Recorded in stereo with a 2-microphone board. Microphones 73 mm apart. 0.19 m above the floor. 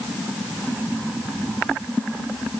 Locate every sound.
Only background noise.